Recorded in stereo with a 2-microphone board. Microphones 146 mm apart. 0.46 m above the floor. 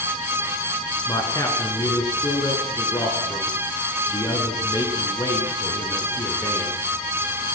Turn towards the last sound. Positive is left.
turn(degrees=25)  # may be behind; listen again after turning